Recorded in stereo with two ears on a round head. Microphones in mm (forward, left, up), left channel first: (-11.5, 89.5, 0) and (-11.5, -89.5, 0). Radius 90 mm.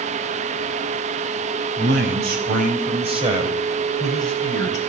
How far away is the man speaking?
About 4.5 m.